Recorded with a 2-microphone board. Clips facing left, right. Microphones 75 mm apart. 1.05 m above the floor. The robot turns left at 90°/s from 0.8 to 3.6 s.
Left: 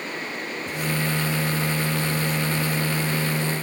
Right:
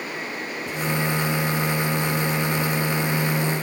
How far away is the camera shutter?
I don't hear a camera shutter.